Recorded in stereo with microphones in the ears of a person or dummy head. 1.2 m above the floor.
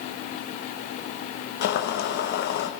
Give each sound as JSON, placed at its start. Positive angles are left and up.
{"t": 1.6, "sound": "boiling", "side_deg": 55, "distance_m": 1.5}